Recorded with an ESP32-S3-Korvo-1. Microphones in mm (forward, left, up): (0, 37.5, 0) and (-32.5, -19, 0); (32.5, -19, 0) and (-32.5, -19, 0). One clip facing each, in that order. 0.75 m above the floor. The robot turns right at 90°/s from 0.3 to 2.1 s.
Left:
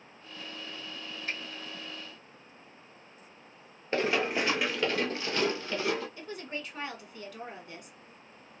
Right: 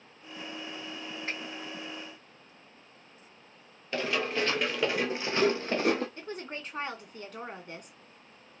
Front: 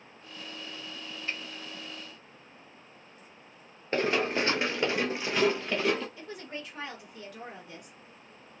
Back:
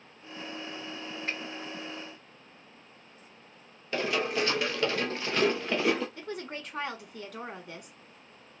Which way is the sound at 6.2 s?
165° right.